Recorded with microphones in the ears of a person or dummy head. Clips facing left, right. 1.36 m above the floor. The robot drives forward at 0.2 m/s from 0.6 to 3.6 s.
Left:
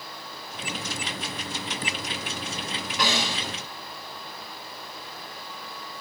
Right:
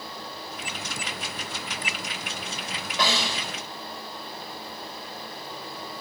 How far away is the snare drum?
About 6 m.